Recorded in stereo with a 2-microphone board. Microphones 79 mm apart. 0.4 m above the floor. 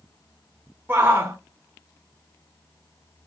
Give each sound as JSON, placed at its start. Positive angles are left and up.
{"t": 0.9, "sound": "a shout", "side_deg": -25, "distance_m": 0.8}